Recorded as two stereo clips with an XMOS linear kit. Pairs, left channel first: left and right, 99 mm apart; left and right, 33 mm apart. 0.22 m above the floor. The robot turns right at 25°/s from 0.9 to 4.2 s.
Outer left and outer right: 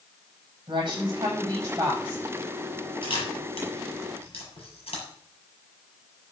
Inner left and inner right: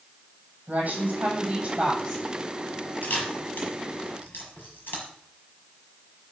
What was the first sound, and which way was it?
A woman speaking, 50° right.